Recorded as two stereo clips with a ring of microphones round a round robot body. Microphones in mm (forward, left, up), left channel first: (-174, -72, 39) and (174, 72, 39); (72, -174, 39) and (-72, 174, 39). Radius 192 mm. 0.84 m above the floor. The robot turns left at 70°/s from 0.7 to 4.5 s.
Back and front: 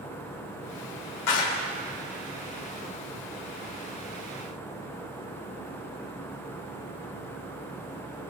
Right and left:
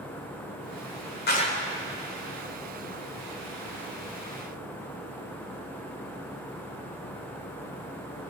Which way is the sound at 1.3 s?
130° right.